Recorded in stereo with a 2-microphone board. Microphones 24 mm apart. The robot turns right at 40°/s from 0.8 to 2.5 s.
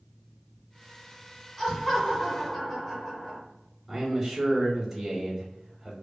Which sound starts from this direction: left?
Laughter, at 1.6 s.